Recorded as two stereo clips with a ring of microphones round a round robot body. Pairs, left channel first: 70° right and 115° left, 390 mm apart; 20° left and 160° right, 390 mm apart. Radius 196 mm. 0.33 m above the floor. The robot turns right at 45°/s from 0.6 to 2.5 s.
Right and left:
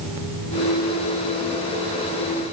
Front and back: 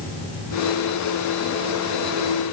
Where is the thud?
I don't hear a thud.